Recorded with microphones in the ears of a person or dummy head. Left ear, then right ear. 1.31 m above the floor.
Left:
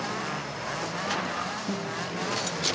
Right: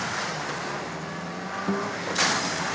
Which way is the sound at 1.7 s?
55° right (ahead or behind).